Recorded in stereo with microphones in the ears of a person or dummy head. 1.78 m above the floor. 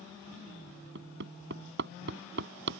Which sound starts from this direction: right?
Hammering, at 0.9 s.